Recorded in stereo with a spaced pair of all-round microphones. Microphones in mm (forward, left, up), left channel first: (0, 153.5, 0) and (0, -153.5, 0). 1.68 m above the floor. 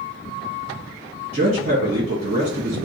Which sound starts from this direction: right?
A man speaking, at 1.3 s.